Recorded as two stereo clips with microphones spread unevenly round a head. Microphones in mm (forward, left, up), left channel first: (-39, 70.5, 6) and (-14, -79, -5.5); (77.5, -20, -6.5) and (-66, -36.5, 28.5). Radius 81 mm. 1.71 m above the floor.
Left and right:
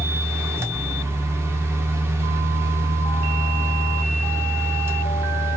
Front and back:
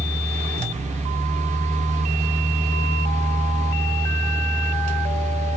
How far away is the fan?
About 0.8 m.